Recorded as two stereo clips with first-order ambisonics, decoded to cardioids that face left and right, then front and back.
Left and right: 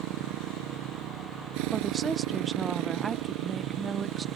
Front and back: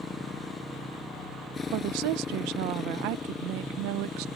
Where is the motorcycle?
75° right.